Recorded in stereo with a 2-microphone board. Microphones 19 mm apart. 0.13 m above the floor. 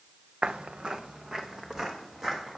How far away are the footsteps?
About 0.8 m.